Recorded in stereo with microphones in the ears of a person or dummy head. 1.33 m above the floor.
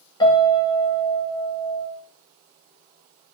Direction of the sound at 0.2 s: 25° left (ahead or behind).